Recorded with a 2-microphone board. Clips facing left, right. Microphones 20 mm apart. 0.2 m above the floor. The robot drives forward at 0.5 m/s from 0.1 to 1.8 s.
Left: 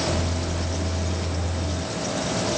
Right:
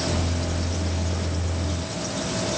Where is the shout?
I don't hear a shout.